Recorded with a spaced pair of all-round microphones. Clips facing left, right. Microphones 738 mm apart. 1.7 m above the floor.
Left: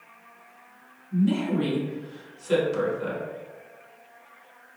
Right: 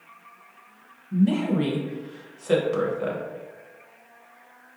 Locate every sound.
1.1 s a woman speaking: 75° right (ahead or behind), 1.1 m